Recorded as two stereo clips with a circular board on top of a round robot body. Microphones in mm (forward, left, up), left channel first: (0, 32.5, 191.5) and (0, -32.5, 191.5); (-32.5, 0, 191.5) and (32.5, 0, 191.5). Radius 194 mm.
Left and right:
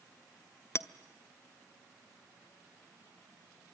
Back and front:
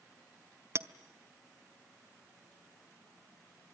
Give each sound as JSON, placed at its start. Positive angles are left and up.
{"t": 0.8, "sound": "a clink", "azimuth_deg": 45, "distance_m": 1.1}